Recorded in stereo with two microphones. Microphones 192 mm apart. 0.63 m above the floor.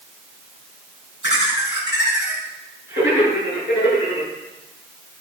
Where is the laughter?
70° left (ahead or behind), 4.5 m.